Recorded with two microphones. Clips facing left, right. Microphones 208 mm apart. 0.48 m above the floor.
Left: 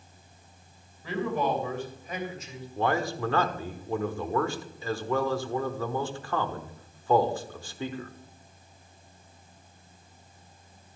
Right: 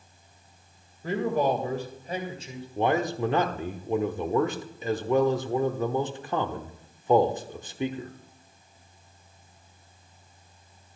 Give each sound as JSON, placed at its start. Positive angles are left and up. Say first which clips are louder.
{"t": 1.0, "sound": "a man speaking", "louder": "right 3 dB", "side_deg": -45, "distance_m": 2.5}
{"t": 2.8, "sound": "a man speaking", "louder": "right 3 dB", "side_deg": -20, "distance_m": 0.9}